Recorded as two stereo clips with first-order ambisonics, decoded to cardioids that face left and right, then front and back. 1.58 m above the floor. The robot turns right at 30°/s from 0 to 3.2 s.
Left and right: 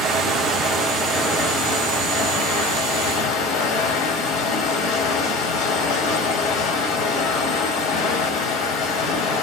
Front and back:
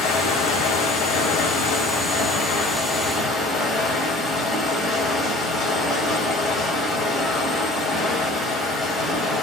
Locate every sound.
0.0 s running water: 20° right, 2.5 m; by 9.4 s 75° left, 2.5 m